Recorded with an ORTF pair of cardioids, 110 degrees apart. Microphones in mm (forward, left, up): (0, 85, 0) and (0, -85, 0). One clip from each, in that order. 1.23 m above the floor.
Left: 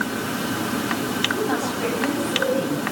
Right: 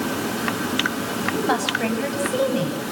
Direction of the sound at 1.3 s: 50° right.